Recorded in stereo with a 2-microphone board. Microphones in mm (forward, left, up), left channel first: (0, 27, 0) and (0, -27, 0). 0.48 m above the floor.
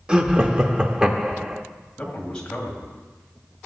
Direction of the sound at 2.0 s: 15° left (ahead or behind).